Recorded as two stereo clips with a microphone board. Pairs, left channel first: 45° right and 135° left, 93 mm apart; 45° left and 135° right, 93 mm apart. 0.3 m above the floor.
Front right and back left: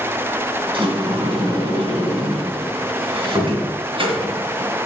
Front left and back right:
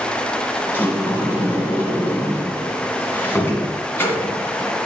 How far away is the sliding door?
About 2 m.